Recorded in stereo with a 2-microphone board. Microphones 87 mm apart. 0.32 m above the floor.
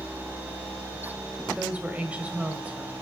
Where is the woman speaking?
15° right (ahead or behind), 1.5 m.